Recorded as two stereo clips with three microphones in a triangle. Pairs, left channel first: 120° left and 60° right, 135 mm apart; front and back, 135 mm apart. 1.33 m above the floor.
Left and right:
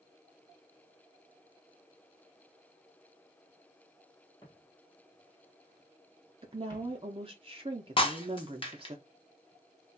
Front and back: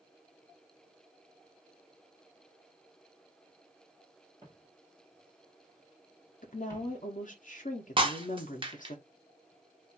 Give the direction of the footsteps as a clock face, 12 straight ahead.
7 o'clock.